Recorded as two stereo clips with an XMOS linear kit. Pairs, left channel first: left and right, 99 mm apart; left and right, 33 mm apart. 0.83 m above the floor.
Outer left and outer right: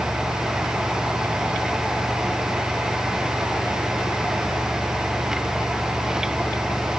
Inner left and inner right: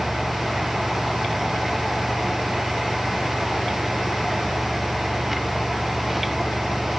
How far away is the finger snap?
I don't hear a finger snap.